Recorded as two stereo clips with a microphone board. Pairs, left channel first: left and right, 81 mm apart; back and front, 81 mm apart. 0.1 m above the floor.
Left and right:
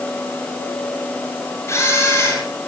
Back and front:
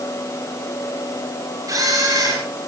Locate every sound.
1.7 s a camera shutter: 40° left, 7 m